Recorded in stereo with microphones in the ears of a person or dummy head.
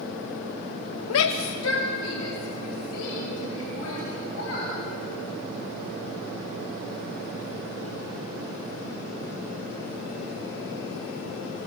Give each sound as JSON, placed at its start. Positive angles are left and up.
{"t": 1.1, "sound": "a shout", "side_deg": 75, "distance_m": 0.6}